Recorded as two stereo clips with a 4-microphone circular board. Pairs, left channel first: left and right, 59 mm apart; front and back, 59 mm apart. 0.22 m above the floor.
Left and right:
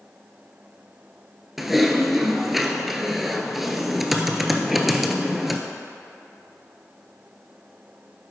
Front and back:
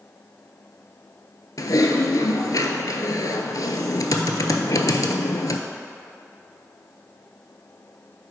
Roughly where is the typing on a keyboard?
Ahead.